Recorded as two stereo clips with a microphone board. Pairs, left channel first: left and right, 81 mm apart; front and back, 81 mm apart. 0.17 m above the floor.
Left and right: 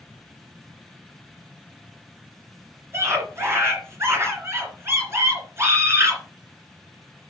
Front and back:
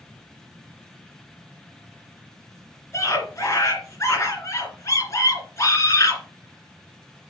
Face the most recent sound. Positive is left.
turn(degrees=-45)